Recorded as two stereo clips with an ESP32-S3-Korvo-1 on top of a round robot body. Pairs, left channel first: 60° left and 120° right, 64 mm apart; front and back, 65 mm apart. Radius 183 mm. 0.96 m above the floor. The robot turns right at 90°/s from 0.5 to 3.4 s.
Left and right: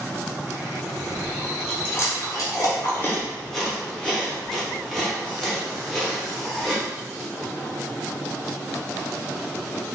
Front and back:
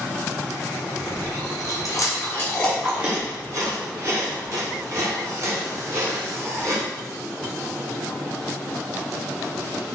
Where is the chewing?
70° right, 1.4 m; by 6.8 s 145° left, 1.4 m.